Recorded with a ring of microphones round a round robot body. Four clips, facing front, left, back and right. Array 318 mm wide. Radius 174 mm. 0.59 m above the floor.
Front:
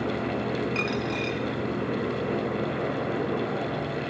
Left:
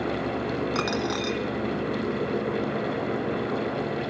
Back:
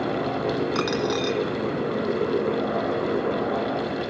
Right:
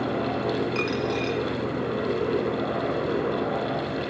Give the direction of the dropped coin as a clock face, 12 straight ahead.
7 o'clock.